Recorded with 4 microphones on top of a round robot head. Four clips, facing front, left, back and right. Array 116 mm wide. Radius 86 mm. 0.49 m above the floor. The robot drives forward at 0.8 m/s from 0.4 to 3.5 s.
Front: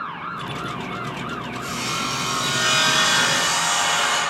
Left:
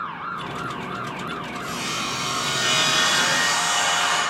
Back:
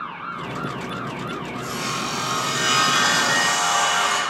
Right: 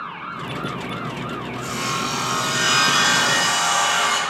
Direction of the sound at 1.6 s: 130° right.